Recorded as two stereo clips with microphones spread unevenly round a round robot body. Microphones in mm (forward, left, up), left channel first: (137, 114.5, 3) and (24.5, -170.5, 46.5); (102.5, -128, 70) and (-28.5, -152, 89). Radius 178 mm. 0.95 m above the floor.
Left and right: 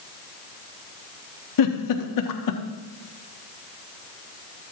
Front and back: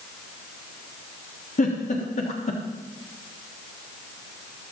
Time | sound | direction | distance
1.6 | a giggle | 55° left | 1.3 m